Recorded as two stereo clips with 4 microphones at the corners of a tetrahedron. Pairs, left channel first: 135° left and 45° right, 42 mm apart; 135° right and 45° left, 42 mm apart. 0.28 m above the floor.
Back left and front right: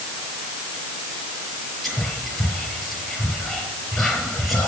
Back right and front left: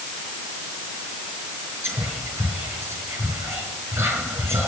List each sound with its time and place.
1.8 s whispering: 50° left, 5.5 m